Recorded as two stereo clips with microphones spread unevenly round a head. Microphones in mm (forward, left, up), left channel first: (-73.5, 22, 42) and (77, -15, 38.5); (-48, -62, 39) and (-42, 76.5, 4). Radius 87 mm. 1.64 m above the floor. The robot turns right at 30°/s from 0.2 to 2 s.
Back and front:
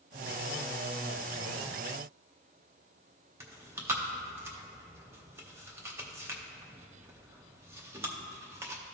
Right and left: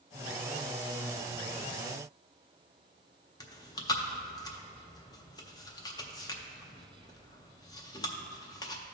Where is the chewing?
85° right, 0.5 m.